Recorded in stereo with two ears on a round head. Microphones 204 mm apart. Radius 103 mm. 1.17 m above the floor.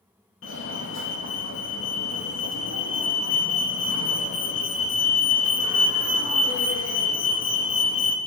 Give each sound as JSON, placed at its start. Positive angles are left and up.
{"t": 0.4, "sound": "a fire alarm", "side_deg": 60, "distance_m": 3.0}